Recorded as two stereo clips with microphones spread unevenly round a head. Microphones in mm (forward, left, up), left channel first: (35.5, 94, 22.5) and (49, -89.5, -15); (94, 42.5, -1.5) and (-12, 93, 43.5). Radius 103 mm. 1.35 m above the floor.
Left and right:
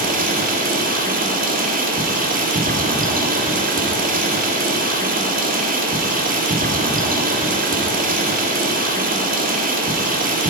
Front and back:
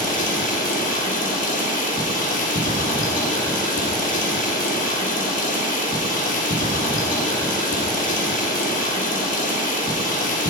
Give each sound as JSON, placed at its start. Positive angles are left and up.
{"t": 0.0, "sound": "running water", "azimuth_deg": -40, "distance_m": 2.5}